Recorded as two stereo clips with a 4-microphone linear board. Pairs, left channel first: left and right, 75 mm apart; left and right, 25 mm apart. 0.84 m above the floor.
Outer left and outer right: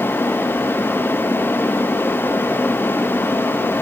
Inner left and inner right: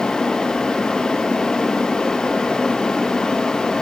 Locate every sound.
Only background noise.